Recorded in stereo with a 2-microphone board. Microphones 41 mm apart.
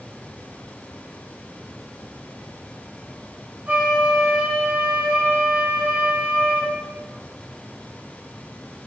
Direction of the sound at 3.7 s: 50° right (ahead or behind).